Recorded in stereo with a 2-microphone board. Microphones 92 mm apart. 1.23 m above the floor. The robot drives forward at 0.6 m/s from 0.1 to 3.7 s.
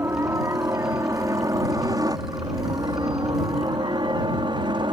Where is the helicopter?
30° right (ahead or behind); by 4.9 s 60° right (ahead or behind).